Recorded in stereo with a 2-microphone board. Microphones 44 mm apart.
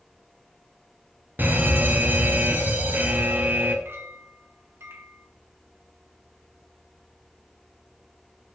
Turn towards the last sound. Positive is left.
turn(degrees=-65)  # may be behind; listen again after turning